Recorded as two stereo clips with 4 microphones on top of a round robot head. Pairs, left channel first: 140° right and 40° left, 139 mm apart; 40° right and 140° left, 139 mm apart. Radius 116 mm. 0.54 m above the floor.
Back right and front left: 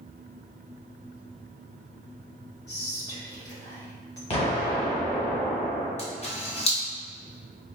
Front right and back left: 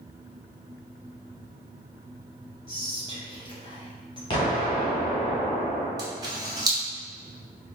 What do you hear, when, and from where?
2.7 s whispering: 85° right, 1.7 m
4.3 s an explosion: 95° right, 1.4 m
6.0 s a camera shutter: 165° right, 1.3 m